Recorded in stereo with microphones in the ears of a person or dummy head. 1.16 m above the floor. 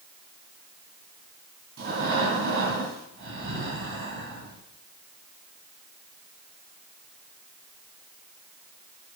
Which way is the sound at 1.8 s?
50° right (ahead or behind).